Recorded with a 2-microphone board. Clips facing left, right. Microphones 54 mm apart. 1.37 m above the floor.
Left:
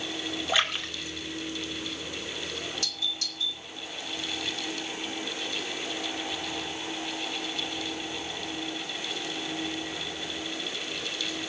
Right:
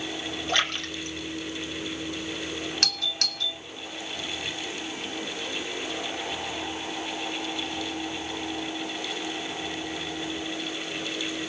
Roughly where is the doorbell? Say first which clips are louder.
Right 4 dB; right.